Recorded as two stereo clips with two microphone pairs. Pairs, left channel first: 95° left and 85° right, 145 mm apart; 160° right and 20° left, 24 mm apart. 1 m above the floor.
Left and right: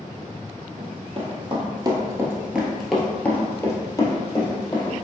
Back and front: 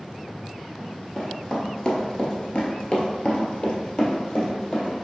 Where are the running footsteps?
90° right, 1.4 m; by 5.1 s 145° left, 2 m.